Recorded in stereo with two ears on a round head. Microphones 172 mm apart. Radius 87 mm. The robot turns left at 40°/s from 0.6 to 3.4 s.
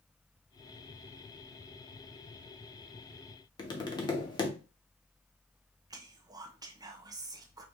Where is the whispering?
20° right (ahead or behind), 0.6 m.